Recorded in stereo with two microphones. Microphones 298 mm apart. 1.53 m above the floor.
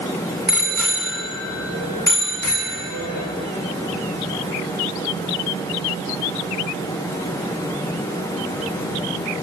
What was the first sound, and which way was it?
A bicycle bell, 65° right (ahead or behind).